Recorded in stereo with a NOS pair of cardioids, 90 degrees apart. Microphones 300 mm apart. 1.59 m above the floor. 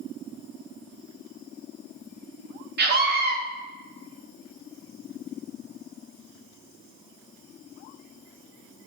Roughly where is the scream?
Ahead right.